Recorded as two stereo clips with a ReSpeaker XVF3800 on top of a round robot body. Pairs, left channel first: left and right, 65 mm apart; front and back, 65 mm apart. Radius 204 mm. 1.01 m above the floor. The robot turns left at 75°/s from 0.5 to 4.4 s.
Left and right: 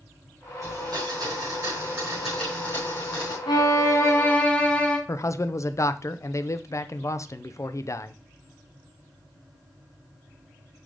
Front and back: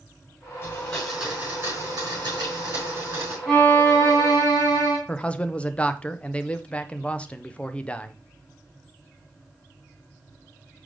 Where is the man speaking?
70° left, 0.8 m.